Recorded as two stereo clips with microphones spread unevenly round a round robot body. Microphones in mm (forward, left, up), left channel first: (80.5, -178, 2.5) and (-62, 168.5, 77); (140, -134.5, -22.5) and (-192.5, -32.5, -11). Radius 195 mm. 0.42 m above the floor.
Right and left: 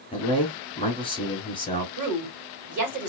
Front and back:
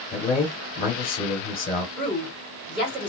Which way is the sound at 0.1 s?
35° right.